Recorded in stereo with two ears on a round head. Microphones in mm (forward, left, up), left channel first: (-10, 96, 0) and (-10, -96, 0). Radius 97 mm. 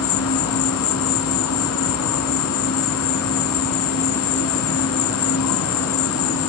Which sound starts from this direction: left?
An insect, at 0.0 s.